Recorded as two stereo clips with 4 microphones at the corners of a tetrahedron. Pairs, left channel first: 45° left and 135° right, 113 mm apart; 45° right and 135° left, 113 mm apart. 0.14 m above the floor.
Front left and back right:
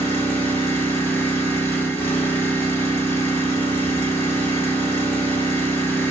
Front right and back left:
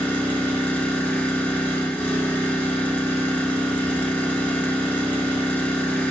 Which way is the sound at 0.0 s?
5° left.